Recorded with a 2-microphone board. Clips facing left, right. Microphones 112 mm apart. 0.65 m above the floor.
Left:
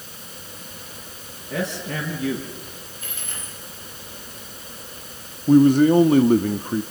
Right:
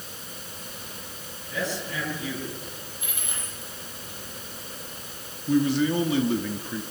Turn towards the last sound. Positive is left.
turn(degrees=50)  # may be behind; listen again after turning